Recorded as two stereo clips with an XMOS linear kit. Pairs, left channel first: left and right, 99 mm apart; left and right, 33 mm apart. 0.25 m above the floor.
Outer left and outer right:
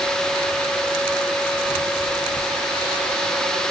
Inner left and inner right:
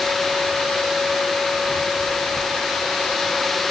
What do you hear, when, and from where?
Only background noise.